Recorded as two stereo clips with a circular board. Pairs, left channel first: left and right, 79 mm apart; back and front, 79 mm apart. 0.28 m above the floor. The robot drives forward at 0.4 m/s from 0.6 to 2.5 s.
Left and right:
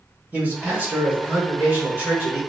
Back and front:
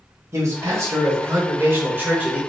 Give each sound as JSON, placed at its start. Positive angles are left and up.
{"t": 0.3, "sound": "a man speaking", "azimuth_deg": -30, "distance_m": 1.9}